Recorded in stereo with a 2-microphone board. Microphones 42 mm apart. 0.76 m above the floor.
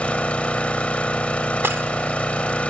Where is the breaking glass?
65° right (ahead or behind), 1.0 m.